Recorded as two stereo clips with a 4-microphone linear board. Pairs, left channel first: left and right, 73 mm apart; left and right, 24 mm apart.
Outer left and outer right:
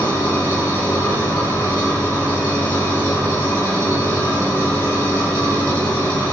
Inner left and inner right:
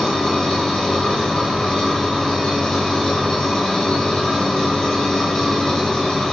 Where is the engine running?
25° left (ahead or behind), 5.5 m.